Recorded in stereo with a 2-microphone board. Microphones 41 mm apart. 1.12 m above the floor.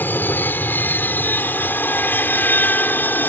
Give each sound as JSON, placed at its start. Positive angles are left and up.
{"t": 0.0, "sound": "an aircraft", "side_deg": 55}